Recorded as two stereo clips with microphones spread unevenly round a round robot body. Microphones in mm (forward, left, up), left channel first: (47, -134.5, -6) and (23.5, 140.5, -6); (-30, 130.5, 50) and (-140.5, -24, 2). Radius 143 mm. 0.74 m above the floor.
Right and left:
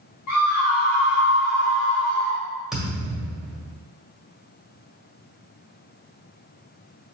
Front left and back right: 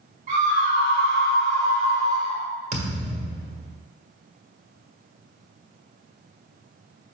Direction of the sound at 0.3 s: 85° right.